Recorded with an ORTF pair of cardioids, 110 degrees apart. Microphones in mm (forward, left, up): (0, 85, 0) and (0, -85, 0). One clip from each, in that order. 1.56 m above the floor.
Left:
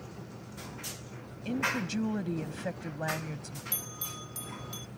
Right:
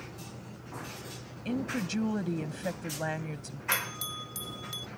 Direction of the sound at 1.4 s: 10° right.